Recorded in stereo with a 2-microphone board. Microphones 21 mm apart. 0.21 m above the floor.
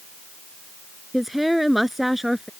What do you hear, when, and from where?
1.1 s a woman speaking: 10° right (ahead or behind)